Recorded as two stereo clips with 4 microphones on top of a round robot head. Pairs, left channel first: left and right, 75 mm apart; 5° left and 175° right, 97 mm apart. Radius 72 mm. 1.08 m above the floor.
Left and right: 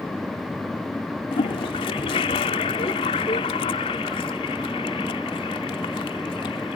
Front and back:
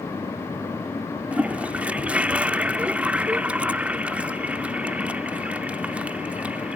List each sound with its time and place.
1.3 s a toilet flushing: 105° left